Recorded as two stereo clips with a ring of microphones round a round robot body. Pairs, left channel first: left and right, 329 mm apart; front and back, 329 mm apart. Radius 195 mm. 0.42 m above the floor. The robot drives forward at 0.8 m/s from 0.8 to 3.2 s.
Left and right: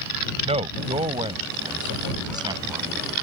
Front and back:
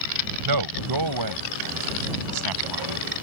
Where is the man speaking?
165° right; by 3.1 s 170° right.